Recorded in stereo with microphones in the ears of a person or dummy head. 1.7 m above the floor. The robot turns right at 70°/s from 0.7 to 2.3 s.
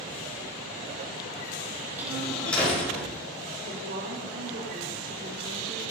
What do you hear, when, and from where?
2.0 s a door slam: 10° right (ahead or behind), 5.5 m; by 3.1 s 10° left (ahead or behind), 5.5 m
3.6 s a woman speaking: 50° right (ahead or behind), 3 m